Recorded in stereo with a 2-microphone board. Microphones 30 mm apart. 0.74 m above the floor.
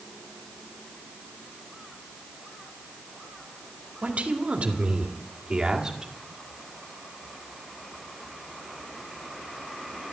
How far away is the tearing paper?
No tearing paper in this recording.